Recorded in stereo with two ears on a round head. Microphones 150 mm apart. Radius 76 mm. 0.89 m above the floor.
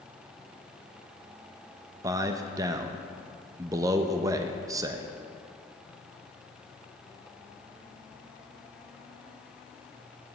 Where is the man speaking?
20° right (ahead or behind), 0.5 m.